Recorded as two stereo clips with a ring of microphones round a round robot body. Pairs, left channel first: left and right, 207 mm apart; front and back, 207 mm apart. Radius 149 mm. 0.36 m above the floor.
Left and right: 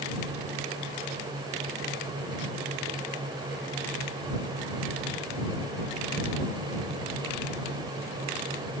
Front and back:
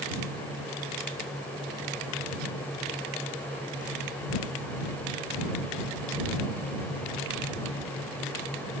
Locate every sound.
Only background noise.